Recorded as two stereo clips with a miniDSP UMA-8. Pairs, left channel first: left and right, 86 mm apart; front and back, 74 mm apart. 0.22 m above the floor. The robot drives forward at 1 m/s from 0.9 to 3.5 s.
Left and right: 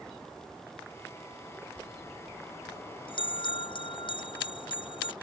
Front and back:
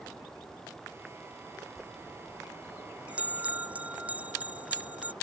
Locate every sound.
1.8 s a bell: 95° left; by 5.1 s 110° left